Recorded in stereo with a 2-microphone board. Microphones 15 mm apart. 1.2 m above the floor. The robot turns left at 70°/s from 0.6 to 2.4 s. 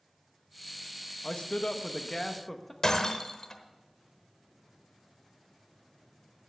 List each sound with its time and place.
1.2 s a man speaking: 95° left, 1.0 m; by 2.7 s 15° left, 1.0 m
2.8 s breaking glass: 40° left (ahead or behind), 1.1 m